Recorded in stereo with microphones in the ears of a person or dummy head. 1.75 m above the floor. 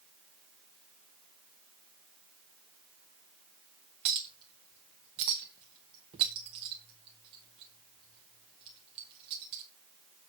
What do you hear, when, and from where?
4.0 s a clink: 20° right (ahead or behind), 1.0 m